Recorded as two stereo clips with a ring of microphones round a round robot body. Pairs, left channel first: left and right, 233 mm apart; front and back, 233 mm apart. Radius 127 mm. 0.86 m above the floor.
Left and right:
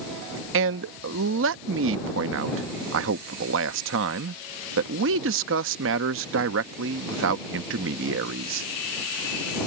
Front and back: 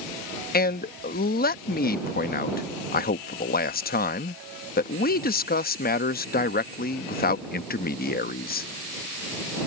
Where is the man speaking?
50° right.